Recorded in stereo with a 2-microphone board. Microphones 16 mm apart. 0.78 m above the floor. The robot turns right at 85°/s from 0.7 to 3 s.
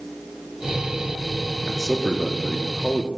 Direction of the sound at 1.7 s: 45° right.